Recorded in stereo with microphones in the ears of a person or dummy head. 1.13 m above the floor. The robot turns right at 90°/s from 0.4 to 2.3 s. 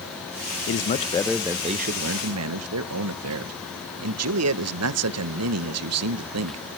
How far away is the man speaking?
About 0.8 m.